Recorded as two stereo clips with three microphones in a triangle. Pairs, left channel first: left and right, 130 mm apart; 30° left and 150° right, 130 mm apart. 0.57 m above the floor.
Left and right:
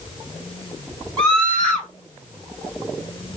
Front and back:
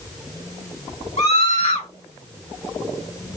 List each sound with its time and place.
1.2 s a scream: 10° left, 3 m